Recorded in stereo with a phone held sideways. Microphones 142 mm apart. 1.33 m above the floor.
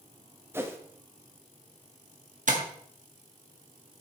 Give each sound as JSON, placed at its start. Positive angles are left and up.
{"t": 0.5, "sound": "a whoosh", "side_deg": -15, "distance_m": 1.0}
{"t": 2.5, "sound": "tapping", "side_deg": -65, "distance_m": 1.7}